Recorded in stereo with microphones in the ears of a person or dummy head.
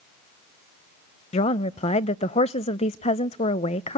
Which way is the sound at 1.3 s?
25° left (ahead or behind).